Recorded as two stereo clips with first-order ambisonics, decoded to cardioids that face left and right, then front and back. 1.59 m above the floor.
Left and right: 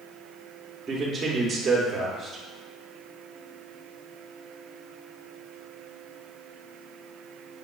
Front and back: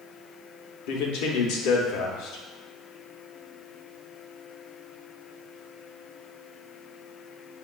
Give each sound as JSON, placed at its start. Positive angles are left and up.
{"t": 0.9, "sound": "a man speaking", "azimuth_deg": -15, "distance_m": 0.7}